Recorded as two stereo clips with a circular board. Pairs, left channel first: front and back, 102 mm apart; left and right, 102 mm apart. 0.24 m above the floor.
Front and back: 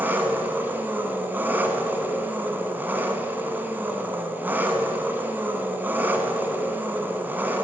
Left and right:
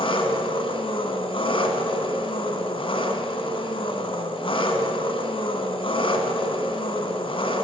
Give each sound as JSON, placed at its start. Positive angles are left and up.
{"t": 0.0, "sound": "an engine running", "azimuth_deg": 110, "distance_m": 1.1}